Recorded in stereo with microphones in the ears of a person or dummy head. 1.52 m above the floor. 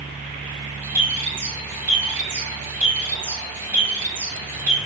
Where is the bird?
15° right (ahead or behind), 2.5 m.